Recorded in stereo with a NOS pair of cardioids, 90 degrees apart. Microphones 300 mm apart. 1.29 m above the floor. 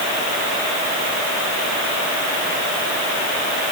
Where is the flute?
No flute in this recording.